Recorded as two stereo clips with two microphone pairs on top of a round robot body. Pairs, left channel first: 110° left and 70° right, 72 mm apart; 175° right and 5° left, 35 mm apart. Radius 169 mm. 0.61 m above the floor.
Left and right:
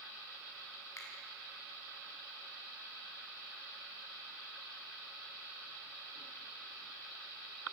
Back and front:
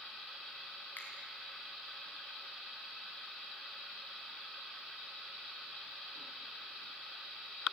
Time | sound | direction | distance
1.0 | a finger snap | 155° left | 6 m